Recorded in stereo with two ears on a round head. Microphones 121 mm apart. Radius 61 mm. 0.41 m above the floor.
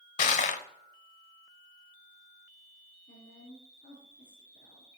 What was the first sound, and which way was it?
Crushing, 65° left (ahead or behind).